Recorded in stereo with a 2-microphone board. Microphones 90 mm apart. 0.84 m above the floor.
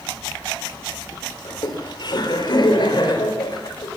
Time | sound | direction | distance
1.4 | laughter | 55° left (ahead or behind) | 3 m